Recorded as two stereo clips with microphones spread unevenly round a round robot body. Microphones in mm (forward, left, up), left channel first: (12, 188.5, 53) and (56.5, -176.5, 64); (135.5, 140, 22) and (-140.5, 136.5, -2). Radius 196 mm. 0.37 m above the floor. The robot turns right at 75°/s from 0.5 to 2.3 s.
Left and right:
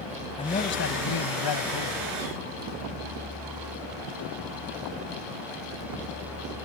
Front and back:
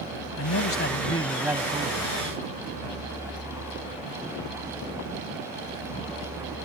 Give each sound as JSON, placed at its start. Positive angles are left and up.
{"t": 0.4, "sound": "a man speaking", "azimuth_deg": 25}